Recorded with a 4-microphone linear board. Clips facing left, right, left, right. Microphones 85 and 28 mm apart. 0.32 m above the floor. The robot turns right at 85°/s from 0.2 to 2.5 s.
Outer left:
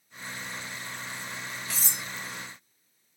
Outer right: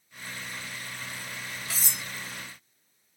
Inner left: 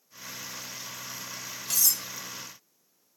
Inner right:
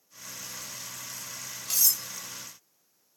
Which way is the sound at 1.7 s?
Centre (ahead or behind).